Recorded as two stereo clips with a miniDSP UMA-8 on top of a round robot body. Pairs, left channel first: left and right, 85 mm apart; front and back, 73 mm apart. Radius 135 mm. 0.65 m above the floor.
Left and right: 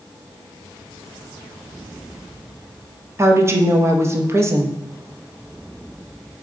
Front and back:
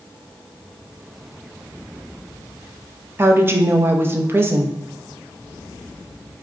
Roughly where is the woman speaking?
Behind right.